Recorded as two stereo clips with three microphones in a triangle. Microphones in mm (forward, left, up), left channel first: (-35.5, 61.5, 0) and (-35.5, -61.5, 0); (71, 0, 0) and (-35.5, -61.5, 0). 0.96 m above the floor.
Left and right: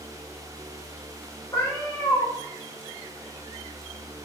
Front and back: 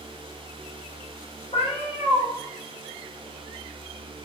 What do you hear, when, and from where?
1.5 s a cat meowing: 35° left, 2.0 m